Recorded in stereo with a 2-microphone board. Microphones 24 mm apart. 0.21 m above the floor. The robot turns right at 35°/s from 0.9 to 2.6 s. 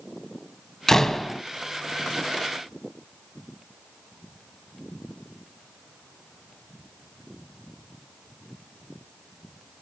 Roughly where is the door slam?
Centre.